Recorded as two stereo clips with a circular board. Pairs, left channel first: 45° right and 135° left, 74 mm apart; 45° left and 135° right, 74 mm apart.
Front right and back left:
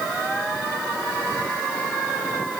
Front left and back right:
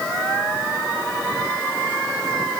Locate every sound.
Only background noise.